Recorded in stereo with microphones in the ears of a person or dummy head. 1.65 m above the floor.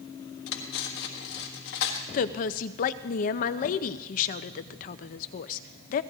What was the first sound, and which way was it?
Cutlery clinking, 60° left (ahead or behind).